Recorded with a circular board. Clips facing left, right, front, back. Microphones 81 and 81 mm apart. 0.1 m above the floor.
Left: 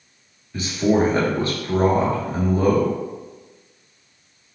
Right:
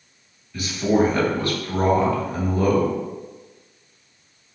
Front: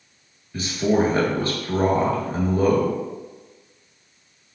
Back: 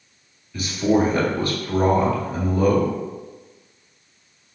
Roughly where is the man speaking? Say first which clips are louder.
Left 1 dB, back 1 dB; ahead left.